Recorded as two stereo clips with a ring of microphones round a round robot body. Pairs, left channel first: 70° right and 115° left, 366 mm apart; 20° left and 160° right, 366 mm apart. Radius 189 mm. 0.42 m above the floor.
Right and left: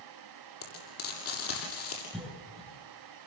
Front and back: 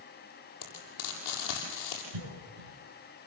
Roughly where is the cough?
Behind right.